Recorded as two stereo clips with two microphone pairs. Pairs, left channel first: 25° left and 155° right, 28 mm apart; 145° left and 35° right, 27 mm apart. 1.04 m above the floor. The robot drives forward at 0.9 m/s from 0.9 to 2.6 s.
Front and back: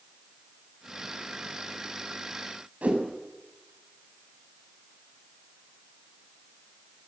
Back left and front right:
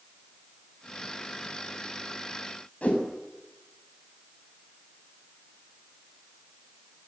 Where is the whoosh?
175° left, 6.5 m.